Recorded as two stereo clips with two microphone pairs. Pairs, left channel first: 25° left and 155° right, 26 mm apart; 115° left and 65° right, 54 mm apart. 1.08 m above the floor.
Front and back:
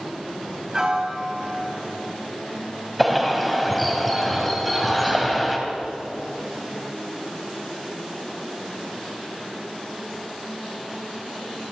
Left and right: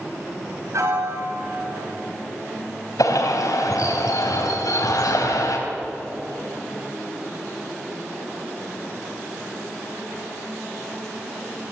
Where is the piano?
90° right, 4 m.